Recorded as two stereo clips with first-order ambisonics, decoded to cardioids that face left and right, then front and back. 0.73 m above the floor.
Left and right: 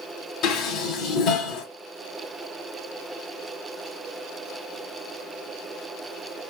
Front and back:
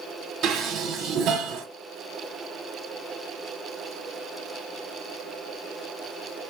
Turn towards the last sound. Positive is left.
turn(degrees=135)